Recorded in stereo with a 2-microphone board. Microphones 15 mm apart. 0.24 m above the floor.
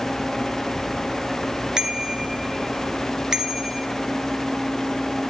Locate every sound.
1.8 s a bicycle bell: 50° right (ahead or behind), 2.5 m